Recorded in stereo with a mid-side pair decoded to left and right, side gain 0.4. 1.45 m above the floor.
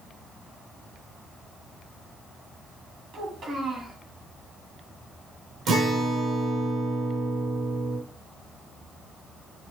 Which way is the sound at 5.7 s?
70° right.